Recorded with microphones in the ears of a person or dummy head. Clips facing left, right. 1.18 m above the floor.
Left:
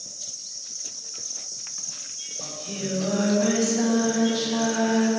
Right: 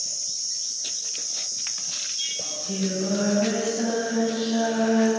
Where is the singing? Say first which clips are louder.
Right 4 dB; 65° left (ahead or behind), 4.5 m.